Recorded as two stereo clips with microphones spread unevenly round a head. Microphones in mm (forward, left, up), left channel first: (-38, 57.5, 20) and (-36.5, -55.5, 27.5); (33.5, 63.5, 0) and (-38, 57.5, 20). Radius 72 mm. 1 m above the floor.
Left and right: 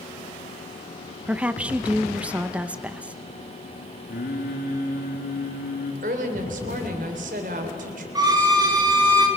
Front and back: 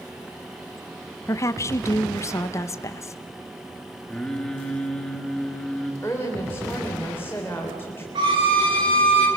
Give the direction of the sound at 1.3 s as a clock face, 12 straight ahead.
12 o'clock.